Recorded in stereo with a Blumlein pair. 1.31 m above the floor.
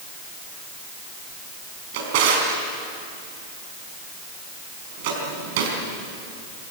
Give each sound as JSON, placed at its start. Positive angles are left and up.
{"t": 1.9, "sound": "a drawer", "azimuth_deg": -50, "distance_m": 4.5}